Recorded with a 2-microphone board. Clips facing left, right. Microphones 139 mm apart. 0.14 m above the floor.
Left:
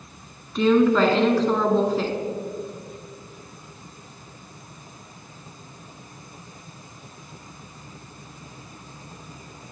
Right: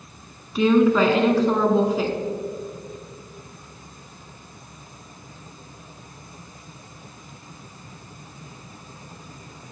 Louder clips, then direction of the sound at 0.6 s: Right 1 dB; 5° right (ahead or behind).